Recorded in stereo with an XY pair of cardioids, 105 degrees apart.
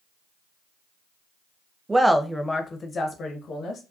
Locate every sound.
1.9 s a woman speaking: 15° right, 0.5 m; by 3.8 s 60° left, 1.0 m